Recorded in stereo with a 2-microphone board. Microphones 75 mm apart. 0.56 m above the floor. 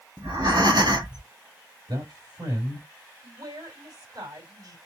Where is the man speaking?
70° right (ahead or behind), 4 m.